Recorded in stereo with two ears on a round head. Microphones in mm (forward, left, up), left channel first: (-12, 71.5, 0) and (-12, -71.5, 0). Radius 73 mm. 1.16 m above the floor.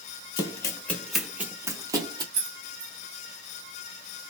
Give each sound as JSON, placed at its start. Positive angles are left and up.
{"t": 0.4, "sound": "running footsteps", "side_deg": 25, "distance_m": 1.3}
{"t": 2.3, "sound": "keys jangling", "side_deg": -70, "distance_m": 1.1}